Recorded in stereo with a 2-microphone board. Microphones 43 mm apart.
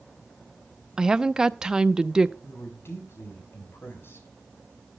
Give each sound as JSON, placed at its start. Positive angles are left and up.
{"t": 1.0, "sound": "a woman speaking", "side_deg": -15, "distance_m": 0.6}
{"t": 2.4, "sound": "a woman speaking", "side_deg": 65, "distance_m": 5.0}